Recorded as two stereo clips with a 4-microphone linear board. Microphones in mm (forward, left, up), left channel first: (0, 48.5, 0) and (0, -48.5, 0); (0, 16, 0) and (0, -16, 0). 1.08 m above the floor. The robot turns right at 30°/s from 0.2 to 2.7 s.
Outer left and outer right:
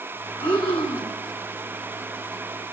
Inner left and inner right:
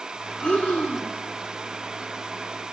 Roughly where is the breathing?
Left.